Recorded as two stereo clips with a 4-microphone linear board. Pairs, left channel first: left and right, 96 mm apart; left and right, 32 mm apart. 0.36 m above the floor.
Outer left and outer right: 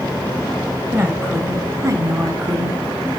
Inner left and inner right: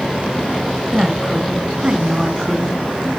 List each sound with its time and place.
0.9 s a woman speaking: 20° right (ahead or behind), 3 m; by 2.8 s 45° right (ahead or behind), 3 m